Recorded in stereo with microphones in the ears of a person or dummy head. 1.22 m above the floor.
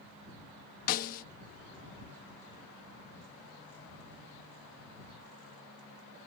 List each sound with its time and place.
0.9 s a snare drum: 45° left (ahead or behind)